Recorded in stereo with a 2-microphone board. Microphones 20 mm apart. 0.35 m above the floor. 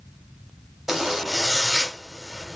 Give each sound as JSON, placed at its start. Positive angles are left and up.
{"t": 0.9, "sound": "a zipper", "side_deg": -25, "distance_m": 1.7}